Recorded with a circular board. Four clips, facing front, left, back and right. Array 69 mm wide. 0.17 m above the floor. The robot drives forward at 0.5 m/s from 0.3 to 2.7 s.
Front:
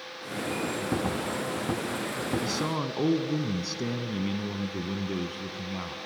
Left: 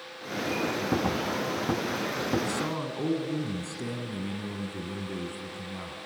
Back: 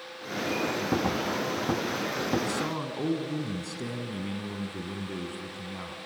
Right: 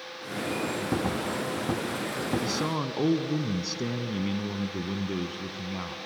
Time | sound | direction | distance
2.4 | a man speaking | 45° right | 1.2 m